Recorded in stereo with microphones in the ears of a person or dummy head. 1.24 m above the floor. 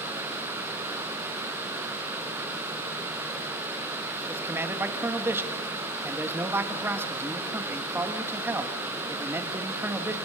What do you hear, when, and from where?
4.3 s a man speaking: 15° right (ahead or behind), 1.5 m